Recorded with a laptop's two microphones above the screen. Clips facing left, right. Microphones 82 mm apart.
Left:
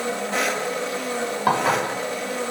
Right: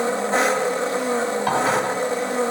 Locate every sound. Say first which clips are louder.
0.0 s an engine running: right 5 dB; 30° right (ahead or behind), 0.7 m
1.5 s dishes clattering: left 2 dB; 30° left (ahead or behind), 3 m